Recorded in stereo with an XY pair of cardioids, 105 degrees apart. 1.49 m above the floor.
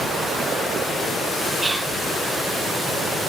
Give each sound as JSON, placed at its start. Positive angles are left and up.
{"t": 1.6, "sound": "whispering", "azimuth_deg": -20, "distance_m": 0.9}